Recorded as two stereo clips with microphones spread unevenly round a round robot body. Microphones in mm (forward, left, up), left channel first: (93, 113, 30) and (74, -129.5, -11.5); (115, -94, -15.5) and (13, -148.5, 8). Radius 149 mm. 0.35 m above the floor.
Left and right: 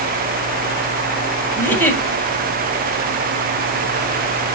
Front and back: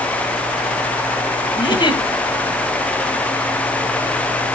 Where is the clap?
I don't hear a clap.